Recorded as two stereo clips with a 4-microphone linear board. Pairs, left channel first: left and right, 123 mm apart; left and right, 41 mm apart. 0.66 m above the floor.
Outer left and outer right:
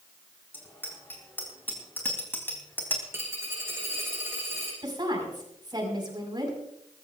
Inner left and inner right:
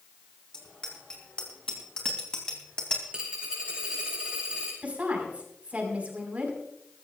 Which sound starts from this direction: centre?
A bicycle bell, at 0.5 s.